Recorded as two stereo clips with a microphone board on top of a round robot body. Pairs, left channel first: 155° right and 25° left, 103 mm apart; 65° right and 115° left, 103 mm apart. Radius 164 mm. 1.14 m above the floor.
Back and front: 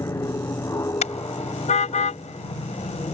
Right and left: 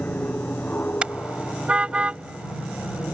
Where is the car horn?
165° right.